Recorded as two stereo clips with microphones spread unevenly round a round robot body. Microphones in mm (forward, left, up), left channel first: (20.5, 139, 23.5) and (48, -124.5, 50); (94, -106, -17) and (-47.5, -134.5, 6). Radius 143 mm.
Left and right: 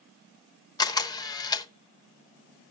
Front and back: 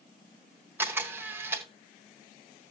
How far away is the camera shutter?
About 0.9 m.